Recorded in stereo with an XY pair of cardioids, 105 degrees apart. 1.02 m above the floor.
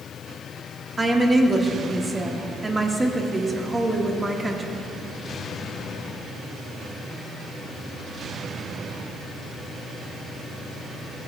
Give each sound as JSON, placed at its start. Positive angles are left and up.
{"t": 1.0, "sound": "a woman speaking", "azimuth_deg": -20, "distance_m": 1.5}